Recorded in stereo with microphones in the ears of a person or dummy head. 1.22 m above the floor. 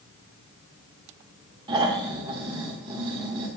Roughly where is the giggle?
No giggle in this recording.